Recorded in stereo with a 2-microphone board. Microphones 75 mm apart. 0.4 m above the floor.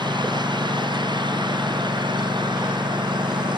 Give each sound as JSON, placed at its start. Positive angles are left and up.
{"t": 0.0, "sound": "a lawn mower", "side_deg": -90}